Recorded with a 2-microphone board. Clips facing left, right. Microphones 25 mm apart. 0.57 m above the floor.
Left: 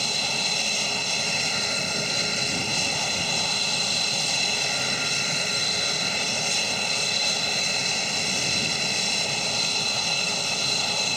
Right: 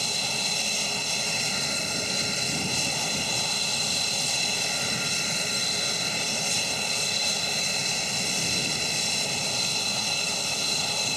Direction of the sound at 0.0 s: 15° left (ahead or behind).